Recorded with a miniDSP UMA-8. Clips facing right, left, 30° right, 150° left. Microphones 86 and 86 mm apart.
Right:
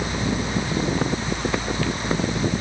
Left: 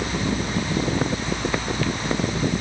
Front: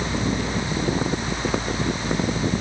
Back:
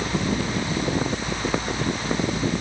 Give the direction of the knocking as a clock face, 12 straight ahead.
No knocking in this recording.